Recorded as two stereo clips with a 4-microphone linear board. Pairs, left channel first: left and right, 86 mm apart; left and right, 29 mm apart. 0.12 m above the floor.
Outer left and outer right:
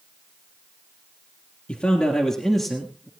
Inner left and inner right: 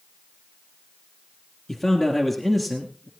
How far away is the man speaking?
About 2.5 m.